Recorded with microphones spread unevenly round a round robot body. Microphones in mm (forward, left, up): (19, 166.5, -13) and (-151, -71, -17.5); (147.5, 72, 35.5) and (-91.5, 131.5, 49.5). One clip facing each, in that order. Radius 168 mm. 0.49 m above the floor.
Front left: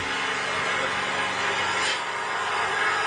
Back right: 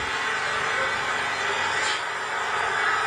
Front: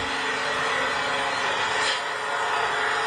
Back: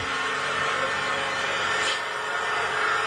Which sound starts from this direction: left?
An engine running, at 0.0 s.